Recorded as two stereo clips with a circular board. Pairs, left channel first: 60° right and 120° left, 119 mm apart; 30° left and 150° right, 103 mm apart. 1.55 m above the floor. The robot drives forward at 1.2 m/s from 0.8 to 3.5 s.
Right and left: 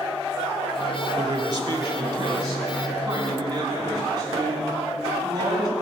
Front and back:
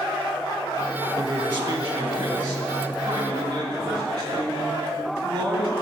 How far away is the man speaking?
About 0.9 m.